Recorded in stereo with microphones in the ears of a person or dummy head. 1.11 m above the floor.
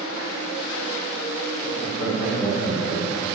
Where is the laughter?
45° left (ahead or behind), 4 m; by 3.3 s 20° left (ahead or behind), 3 m.